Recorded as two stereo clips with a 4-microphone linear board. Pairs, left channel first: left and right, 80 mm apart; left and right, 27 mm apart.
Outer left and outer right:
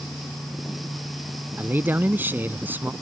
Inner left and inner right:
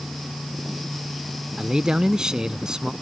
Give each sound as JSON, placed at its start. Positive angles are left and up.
{"t": 1.6, "sound": "a man speaking", "side_deg": -25}